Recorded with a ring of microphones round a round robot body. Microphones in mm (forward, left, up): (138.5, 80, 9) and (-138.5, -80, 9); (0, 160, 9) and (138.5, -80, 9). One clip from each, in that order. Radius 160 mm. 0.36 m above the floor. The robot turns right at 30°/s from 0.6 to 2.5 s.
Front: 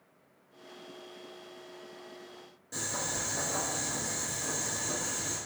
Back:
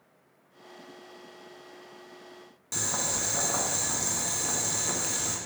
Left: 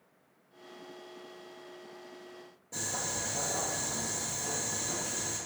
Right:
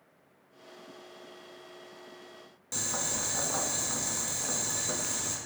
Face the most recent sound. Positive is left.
turn(degrees=-90)